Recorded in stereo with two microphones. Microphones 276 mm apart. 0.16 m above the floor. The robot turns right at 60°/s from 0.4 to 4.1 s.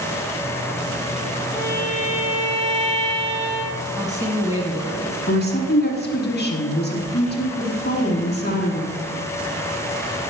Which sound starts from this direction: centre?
A woman speaking, at 4.0 s.